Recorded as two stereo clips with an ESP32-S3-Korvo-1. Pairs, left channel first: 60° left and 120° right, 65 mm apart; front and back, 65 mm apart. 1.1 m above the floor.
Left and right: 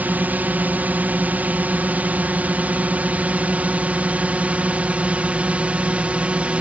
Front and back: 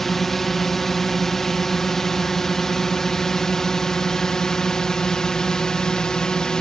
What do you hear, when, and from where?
0.0 s a drone: 80° right; by 6.6 s 70° right